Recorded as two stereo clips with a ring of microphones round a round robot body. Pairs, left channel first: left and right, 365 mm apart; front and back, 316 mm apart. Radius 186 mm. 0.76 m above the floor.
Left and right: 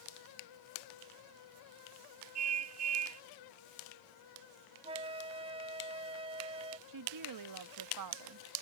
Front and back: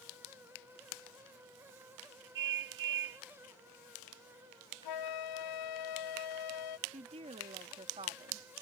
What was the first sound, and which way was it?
A car horn, 140° right.